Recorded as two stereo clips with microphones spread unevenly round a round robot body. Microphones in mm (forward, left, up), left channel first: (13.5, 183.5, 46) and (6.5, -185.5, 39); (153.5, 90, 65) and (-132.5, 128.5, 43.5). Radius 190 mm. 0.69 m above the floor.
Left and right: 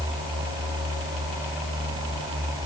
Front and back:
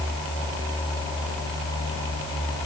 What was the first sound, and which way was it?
Only background noise.